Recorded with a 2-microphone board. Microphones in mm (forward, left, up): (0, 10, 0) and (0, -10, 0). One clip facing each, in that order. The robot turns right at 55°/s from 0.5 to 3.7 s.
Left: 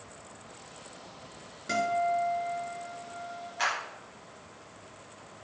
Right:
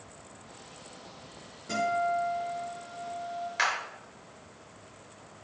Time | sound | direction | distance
1.7 | a guitar | 125° left | 4.5 m
3.6 | a clap | 75° right (ahead or behind) | 4.5 m